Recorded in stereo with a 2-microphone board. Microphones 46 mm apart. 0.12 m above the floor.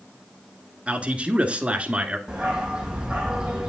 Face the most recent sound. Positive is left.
turn(degrees=-15)  # may be behind; listen again after turning